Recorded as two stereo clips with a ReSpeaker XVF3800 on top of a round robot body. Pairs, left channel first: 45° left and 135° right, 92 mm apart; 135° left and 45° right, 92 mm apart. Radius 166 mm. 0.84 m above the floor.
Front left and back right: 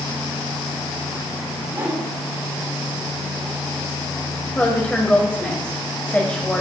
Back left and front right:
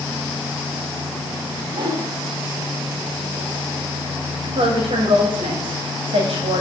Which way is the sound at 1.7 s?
75° right.